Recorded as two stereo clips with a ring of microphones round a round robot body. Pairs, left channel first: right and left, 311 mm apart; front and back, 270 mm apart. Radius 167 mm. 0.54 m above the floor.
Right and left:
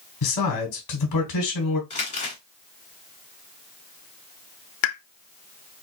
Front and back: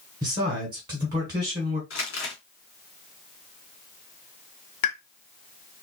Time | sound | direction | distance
0.2 | a man speaking | 105° right | 1.6 m
1.9 | crumpling | 25° right | 2 m
4.8 | a pop | 40° right | 0.6 m